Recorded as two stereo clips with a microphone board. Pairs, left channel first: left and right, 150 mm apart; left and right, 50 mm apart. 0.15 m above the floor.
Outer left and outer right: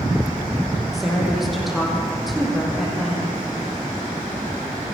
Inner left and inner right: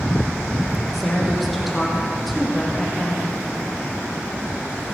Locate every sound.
0.9 s a woman speaking: centre (ahead or behind), 5.5 m